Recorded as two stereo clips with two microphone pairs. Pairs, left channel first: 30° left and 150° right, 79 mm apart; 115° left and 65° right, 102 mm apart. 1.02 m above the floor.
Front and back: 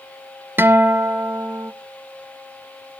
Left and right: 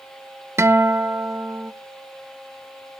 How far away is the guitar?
About 0.8 m.